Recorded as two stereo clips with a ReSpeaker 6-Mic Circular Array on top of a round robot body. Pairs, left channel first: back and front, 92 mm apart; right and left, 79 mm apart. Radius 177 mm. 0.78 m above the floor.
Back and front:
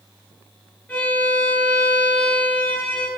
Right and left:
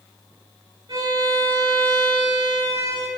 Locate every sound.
0.9 s a violin: 105° left, 8 m